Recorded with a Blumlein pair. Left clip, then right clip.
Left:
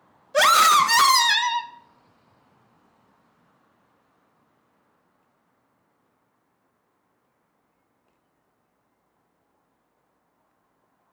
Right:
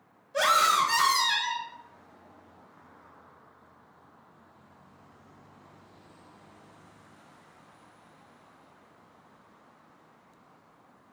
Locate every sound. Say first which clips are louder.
0.3 s a scream: left 7 dB; 30° left, 0.7 m